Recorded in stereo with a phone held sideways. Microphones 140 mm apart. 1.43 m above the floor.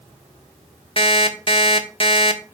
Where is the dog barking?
I don't hear a dog barking.